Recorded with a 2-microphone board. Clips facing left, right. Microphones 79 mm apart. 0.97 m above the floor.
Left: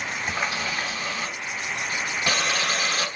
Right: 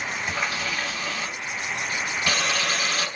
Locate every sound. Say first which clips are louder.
0.3 s a running tap: left 1 dB; 20° left (ahead or behind), 1.5 m